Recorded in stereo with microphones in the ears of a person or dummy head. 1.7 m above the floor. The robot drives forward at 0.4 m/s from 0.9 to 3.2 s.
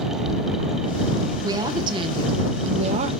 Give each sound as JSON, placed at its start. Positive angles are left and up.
{"t": 1.4, "sound": "a woman speaking", "side_deg": -25, "distance_m": 1.4}